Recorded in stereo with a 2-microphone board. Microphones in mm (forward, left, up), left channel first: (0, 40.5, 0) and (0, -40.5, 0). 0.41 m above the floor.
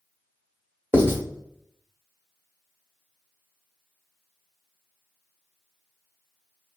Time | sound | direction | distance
0.9 | writing | 30° right (ahead or behind) | 1.1 m